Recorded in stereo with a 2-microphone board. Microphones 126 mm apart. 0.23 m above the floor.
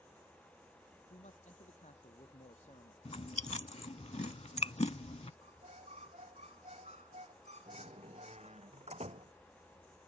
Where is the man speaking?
75° left (ahead or behind).